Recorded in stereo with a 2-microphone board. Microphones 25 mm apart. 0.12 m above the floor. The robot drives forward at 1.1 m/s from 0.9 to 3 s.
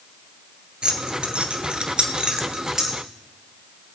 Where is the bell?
I don't hear a bell.